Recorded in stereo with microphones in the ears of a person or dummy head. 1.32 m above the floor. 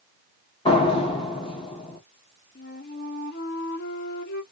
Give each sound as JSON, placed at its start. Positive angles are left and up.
{"t": 0.7, "sound": "a door slam", "side_deg": 30, "distance_m": 0.9}
{"t": 2.5, "sound": "a flute", "side_deg": 50, "distance_m": 0.8}